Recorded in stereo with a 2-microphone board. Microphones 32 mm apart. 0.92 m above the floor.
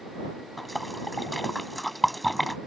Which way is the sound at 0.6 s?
5° left (ahead or behind).